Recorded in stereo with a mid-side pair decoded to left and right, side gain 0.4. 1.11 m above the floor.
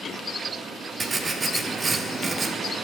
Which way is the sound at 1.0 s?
35° right.